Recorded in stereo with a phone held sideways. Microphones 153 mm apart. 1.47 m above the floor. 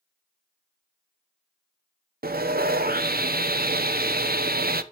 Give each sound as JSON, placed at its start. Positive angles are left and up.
{"t": 2.2, "sound": "sawing", "side_deg": -80, "distance_m": 0.7}